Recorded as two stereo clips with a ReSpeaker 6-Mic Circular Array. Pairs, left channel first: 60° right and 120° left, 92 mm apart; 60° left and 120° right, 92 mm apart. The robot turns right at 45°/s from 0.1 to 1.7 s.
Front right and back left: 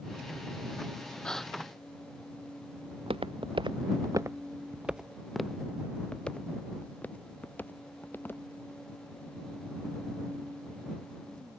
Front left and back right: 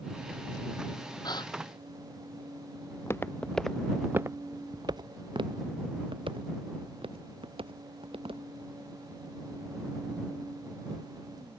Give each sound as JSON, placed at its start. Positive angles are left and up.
{"t": 1.2, "sound": "a gasp", "azimuth_deg": 20}
{"t": 2.9, "sound": "footsteps", "azimuth_deg": 115}